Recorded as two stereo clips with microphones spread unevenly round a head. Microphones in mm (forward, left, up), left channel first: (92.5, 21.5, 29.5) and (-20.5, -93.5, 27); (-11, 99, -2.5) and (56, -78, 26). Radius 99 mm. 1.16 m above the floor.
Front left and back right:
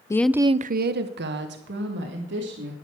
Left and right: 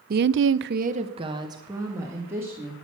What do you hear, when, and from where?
0.1 s a woman speaking: 25° right, 0.6 m; by 2.7 s 150° right, 2.5 m